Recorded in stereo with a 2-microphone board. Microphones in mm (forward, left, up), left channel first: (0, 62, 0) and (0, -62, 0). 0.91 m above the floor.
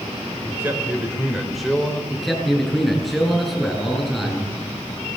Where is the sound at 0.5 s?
20° right (ahead or behind), 4 m; by 2.0 s 10° left (ahead or behind), 4 m.